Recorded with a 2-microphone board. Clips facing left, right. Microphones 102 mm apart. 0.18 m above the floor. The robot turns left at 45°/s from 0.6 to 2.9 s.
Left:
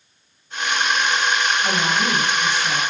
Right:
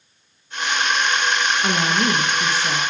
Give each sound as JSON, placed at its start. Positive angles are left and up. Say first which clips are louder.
{"t": 1.6, "sound": "a woman speaking", "louder": "right 1 dB", "azimuth_deg": -75, "distance_m": 2.0}